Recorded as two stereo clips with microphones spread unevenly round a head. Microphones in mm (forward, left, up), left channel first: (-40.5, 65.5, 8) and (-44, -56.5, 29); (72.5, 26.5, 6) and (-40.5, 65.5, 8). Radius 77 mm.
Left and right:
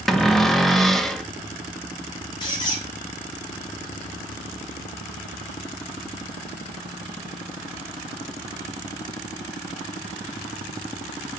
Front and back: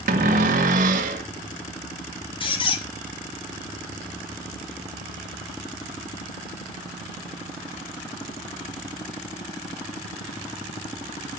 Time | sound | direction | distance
0.1 | a cupboard door | straight behind | 1.5 m
2.4 | a squeak | 20° left | 3.5 m